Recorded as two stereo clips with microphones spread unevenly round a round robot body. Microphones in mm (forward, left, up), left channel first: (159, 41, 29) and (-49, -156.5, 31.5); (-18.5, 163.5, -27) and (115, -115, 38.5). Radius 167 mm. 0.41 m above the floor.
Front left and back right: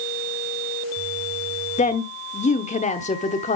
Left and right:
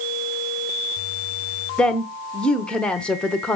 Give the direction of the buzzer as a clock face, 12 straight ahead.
I don't hear a buzzer.